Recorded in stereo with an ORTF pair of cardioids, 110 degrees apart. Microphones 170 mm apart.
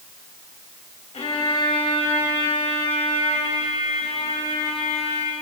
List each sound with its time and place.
1.1 s a violin: 40° left, 3.5 m